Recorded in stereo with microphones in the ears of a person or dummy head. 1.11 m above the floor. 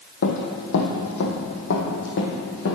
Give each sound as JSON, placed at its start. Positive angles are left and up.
{"t": 0.2, "sound": "running footsteps", "side_deg": 60, "distance_m": 2.0}